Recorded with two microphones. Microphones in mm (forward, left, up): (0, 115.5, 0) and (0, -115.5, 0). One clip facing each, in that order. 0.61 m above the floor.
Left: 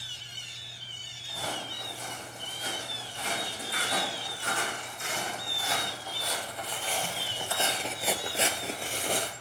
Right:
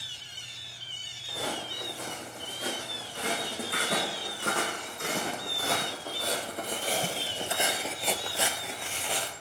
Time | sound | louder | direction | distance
1.3 | footsteps | right 3 dB | 80° right | 4.5 m